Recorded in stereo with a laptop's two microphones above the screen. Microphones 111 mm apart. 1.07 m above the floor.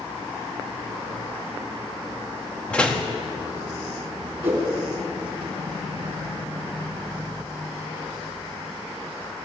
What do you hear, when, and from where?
2.7 s a door slam: 10° left (ahead or behind), 1.5 m
4.4 s a whoosh: 20° right (ahead or behind), 5 m